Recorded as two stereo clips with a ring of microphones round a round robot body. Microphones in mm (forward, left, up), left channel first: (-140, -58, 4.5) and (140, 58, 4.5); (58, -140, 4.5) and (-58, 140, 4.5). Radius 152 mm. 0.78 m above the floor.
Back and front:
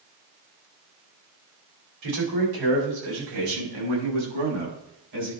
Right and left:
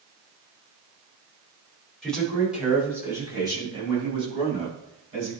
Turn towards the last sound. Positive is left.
turn(degrees=45)